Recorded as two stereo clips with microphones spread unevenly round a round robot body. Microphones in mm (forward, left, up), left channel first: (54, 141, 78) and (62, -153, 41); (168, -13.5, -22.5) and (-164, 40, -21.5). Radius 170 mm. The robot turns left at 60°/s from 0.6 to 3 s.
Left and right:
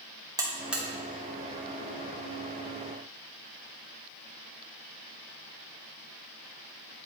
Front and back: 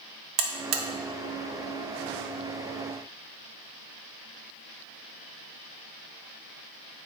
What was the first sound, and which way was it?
A buzzer, 165° right.